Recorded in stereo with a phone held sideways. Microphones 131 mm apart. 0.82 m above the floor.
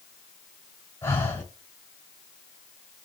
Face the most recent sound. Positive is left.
turn(degrees=20)  # may be behind; listen again after turning